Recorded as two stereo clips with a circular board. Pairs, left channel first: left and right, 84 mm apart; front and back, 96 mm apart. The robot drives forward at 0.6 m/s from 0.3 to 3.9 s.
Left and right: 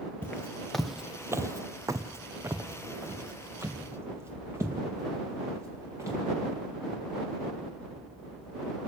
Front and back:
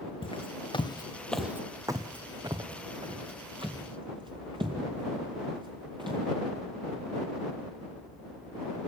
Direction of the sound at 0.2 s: 15° left.